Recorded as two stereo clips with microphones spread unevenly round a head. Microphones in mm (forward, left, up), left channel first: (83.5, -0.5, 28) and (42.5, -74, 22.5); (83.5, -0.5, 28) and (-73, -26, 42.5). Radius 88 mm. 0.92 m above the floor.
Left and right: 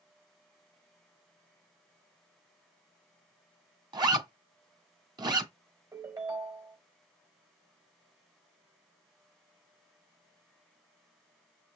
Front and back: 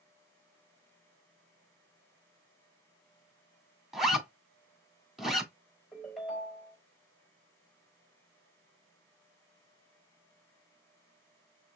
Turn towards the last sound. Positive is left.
turn(degrees=-80)